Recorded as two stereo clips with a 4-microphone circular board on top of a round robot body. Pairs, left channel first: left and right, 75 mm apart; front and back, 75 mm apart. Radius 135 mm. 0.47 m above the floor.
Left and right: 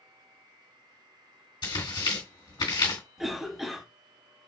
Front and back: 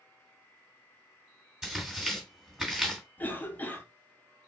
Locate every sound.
1.6 s tearing paper: 100° left, 2 m
3.2 s a cough: 5° right, 1.1 m